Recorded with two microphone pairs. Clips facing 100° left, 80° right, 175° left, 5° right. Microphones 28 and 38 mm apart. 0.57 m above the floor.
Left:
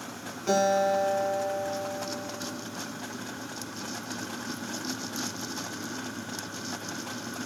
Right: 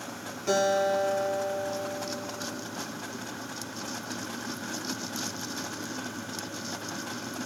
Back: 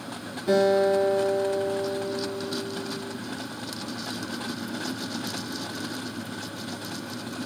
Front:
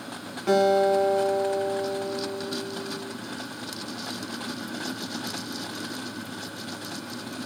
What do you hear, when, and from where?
0.5 s a guitar: 15° left, 4 m